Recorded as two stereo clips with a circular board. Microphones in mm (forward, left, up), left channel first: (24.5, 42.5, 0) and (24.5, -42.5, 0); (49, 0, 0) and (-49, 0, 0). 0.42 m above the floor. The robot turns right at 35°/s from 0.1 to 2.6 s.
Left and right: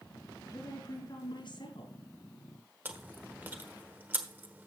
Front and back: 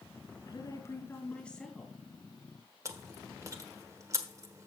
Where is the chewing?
145° right, 1.1 m.